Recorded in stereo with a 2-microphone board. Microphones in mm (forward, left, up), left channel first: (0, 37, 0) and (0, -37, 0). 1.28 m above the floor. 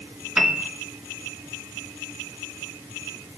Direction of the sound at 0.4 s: 10° right (ahead or behind).